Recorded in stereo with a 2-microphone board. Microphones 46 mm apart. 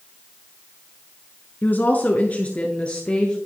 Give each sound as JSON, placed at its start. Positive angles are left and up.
{"t": 1.6, "sound": "a woman speaking", "side_deg": 40, "distance_m": 1.5}